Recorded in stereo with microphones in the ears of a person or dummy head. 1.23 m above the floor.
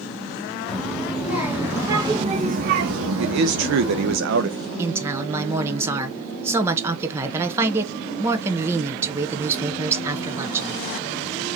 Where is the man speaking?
70° right (ahead or behind), 0.6 m.